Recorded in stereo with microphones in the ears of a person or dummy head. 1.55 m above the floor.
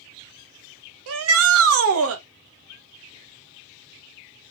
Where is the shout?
85° right, 1.3 m.